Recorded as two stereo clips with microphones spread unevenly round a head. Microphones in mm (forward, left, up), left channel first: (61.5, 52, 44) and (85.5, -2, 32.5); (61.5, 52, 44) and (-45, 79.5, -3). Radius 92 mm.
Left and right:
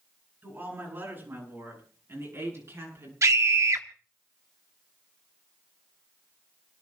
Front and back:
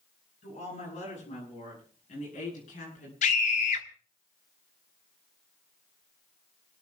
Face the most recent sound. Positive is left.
turn(degrees=-35)